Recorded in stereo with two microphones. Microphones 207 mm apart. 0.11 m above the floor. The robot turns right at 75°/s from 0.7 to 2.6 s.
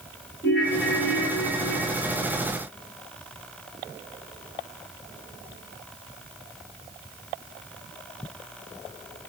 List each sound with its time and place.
0.4 s a ringtone: 55° left, 5 m; by 2.4 s straight behind, 5 m